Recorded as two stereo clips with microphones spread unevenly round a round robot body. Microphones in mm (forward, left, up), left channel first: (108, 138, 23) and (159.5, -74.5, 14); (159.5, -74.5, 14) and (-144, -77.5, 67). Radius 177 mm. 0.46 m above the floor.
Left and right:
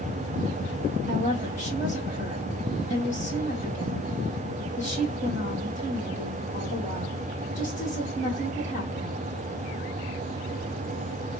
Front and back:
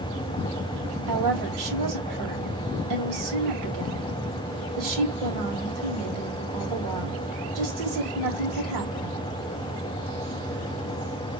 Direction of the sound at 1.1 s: 160° right.